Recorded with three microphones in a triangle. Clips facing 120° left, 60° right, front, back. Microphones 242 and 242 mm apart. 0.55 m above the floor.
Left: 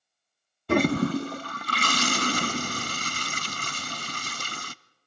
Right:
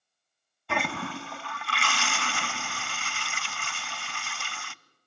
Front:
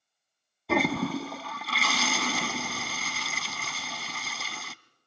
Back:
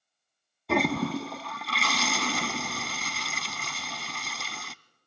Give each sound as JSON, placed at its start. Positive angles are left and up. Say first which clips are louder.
{"t": 0.7, "sound": "a toilet flushing", "louder": "left 12 dB, even", "azimuth_deg": 90, "distance_m": 0.5}